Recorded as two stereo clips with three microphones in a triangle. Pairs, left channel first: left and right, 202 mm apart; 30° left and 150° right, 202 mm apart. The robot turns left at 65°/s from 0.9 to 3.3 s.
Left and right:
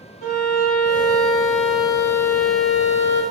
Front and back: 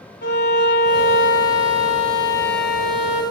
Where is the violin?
55° left, 0.8 m; by 3.2 s 95° right, 0.8 m.